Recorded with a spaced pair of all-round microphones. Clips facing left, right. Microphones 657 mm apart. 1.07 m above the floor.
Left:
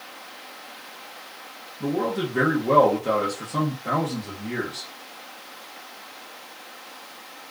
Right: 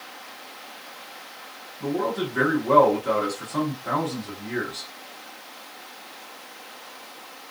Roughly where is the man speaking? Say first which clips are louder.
Left 1 dB; left.